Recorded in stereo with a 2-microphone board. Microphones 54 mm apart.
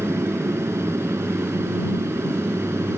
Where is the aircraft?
60° right (ahead or behind).